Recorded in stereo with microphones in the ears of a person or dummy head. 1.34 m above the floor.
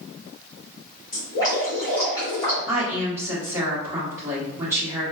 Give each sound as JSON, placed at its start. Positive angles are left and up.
{"t": 1.1, "sound": "dripping", "side_deg": 15, "distance_m": 1.9}
{"t": 2.7, "sound": "a woman speaking", "side_deg": -10, "distance_m": 1.2}